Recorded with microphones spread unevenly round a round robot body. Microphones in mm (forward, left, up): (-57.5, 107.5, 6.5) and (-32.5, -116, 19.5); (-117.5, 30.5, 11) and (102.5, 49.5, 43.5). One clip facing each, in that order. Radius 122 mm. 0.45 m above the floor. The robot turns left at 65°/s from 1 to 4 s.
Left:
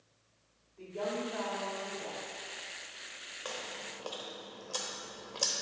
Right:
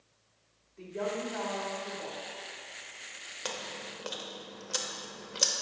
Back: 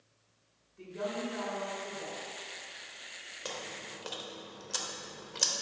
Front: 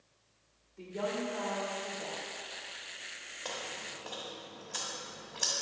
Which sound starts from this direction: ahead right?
A woman speaking, at 0.8 s.